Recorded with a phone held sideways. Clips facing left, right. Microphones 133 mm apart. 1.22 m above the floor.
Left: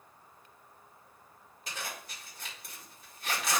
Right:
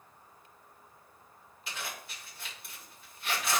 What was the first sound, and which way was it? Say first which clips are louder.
A zipper: even; 40° left (ahead or behind).